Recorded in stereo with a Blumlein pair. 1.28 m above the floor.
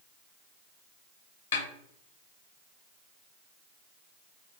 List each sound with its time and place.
1.5 s a snare drum: 60° left, 1.0 m